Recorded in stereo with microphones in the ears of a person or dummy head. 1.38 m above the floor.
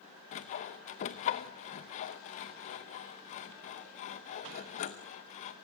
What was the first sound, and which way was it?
Sawing, 30° left (ahead or behind).